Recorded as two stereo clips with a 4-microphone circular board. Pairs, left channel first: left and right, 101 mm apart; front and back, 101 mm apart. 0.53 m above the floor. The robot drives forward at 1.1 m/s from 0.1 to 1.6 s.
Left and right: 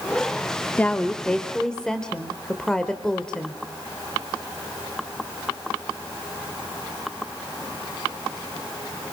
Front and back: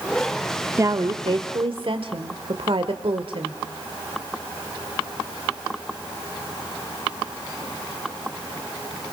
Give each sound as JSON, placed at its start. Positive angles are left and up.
{"t": 0.8, "sound": "a woman speaking", "azimuth_deg": 150, "distance_m": 0.7}